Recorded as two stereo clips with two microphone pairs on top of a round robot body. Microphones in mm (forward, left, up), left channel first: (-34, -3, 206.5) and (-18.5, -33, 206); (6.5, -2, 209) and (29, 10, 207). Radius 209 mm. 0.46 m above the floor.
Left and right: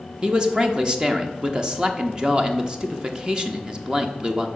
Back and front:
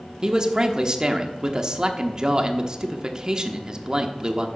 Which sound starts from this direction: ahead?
A man speaking, at 0.2 s.